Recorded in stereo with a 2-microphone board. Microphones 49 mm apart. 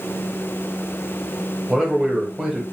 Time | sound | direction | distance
1.7 | a man speaking | 5° right (ahead or behind) | 1.1 m